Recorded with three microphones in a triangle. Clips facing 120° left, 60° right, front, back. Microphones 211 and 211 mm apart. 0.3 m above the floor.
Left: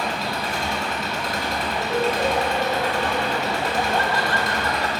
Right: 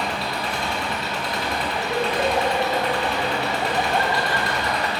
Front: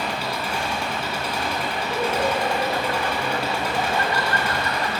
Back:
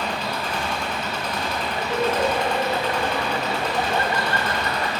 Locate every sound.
0.0 s an engine running: 80° left, 1.9 m
1.8 s laughter: 130° right, 1.9 m